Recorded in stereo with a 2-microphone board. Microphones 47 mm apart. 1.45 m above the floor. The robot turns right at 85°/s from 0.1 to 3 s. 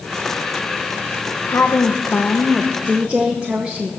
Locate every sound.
1.5 s a woman speaking: 80° left, 0.8 m; by 3.9 s 150° right, 0.8 m